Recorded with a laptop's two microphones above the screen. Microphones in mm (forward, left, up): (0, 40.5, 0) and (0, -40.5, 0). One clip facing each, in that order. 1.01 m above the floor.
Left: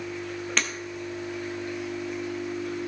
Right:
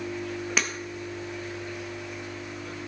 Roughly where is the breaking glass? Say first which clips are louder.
Even; centre.